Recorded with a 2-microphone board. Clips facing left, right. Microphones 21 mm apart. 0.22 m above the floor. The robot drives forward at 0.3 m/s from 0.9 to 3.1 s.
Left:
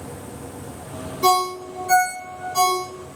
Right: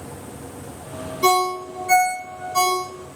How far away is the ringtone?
About 1.1 m.